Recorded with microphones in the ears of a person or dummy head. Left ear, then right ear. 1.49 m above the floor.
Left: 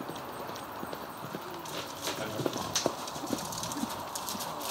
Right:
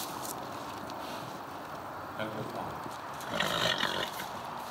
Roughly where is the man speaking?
Right.